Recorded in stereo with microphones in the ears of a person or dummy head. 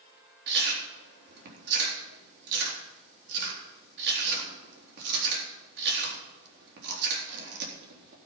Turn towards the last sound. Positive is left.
turn(degrees=-70)  # may be behind; listen again after turning